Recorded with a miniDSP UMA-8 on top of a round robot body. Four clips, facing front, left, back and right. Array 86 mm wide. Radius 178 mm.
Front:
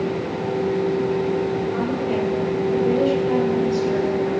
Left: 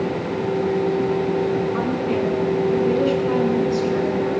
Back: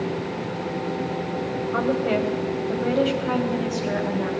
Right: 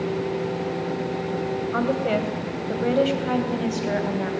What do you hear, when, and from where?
1.7 s a woman speaking: 125° right, 4.5 m; by 4.3 s 115° right, 5.5 m